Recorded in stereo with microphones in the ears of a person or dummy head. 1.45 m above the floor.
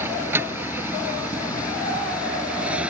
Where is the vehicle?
15° right (ahead or behind); by 2.9 s 10° right (ahead or behind).